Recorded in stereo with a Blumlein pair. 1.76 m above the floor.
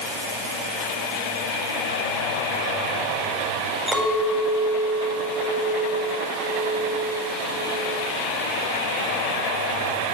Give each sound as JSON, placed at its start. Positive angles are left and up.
{"t": 3.9, "sound": "a clink", "azimuth_deg": -5, "distance_m": 8.0}